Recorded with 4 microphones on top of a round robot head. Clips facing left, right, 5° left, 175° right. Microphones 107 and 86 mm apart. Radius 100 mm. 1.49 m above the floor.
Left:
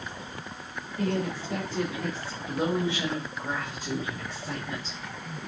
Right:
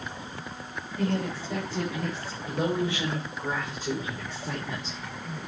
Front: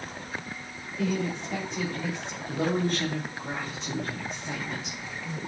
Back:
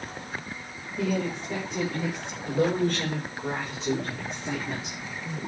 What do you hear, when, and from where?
1.0 s a woman speaking: 155° right, 6.5 m; by 5.0 s 165° right, 4 m